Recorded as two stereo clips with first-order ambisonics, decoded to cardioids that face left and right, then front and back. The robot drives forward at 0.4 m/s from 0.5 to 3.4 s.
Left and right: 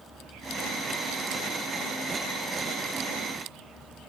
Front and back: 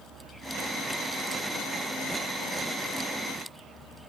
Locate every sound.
Only background noise.